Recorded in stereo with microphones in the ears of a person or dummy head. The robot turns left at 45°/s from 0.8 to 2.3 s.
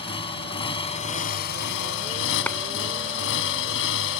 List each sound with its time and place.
0.0 s a motorcycle: 145° left; by 4.2 s 80° left
2.5 s a clap: 15° left (ahead or behind)